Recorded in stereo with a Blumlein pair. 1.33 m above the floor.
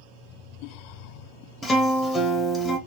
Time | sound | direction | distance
1.6 | a guitar | 15° left | 0.7 m